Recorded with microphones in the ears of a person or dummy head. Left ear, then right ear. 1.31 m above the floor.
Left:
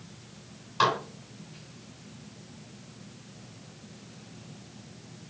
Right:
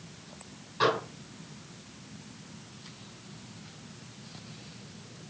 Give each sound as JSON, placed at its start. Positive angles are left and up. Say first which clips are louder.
{"t": 0.8, "sound": "dishes clattering", "louder": "left 2 dB", "side_deg": 45, "distance_m": 6.0}